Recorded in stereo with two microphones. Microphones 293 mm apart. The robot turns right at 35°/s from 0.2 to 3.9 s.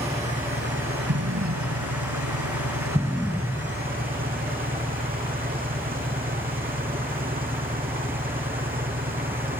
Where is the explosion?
60° right (ahead or behind); by 3.8 s 15° left (ahead or behind).